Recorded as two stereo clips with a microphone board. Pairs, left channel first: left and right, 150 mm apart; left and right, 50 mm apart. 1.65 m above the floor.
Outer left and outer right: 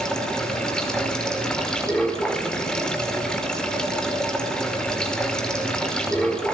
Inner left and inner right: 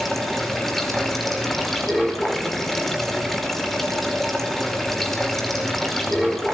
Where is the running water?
5° left (ahead or behind), 4.5 m.